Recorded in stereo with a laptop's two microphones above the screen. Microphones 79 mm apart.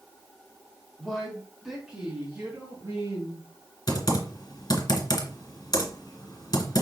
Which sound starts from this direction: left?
Typing on a keyboard, at 3.9 s.